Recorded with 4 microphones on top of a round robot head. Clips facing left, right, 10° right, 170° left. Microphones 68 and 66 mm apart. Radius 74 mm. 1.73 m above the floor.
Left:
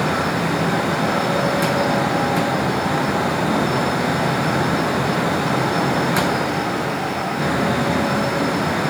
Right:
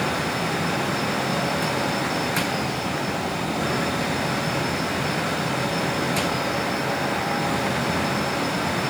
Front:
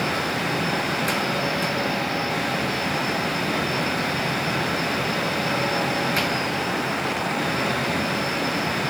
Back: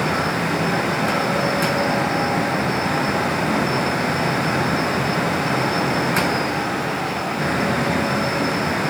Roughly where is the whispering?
I don't hear whispering.